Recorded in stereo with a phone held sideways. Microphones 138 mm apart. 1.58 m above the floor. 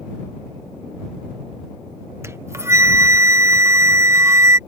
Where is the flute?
20° right (ahead or behind).